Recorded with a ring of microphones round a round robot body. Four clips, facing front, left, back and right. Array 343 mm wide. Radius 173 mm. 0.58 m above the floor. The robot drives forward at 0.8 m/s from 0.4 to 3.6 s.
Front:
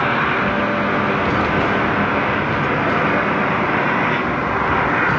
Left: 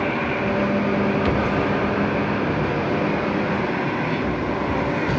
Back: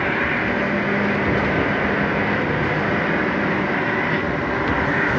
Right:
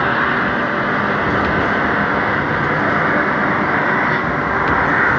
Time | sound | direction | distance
0.0 | an engine running | 50° right | ?